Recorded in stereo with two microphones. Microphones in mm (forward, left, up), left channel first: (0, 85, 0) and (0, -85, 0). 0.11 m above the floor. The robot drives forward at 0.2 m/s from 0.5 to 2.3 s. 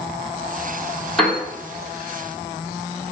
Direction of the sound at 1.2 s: Centre (ahead or behind).